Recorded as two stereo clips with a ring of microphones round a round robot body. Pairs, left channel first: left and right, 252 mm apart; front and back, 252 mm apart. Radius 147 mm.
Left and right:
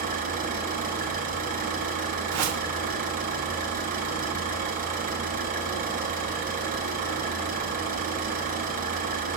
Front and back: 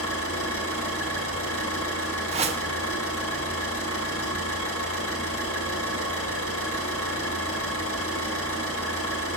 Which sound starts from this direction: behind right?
A whoosh, at 2.3 s.